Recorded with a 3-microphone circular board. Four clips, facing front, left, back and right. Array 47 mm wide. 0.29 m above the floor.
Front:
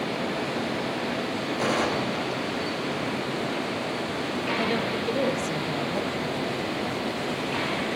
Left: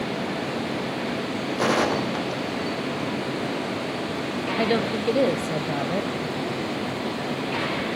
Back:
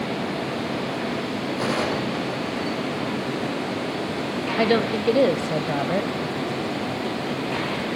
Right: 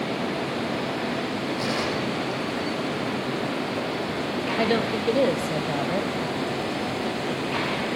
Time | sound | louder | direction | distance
1.6 | a gunshot | left 8 dB, even | 95° left | 5.5 m
4.6 | a woman speaking | even, back 10 dB | straight behind | 1.1 m